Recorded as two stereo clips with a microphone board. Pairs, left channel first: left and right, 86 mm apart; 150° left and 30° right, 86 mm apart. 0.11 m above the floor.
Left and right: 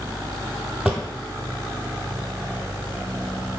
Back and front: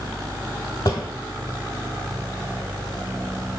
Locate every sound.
0.8 s a drawer: 170° right, 0.8 m